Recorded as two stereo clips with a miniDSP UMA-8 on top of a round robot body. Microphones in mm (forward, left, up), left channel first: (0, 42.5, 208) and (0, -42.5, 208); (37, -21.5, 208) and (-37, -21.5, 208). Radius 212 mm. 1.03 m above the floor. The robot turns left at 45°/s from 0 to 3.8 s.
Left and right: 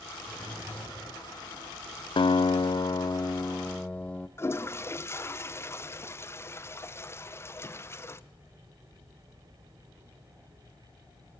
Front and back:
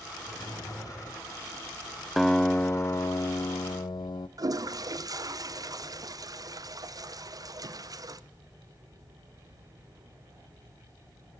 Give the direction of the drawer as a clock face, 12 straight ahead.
12 o'clock.